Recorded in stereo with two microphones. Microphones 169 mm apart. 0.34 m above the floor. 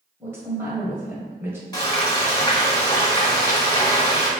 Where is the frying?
20° left (ahead or behind), 1.0 m.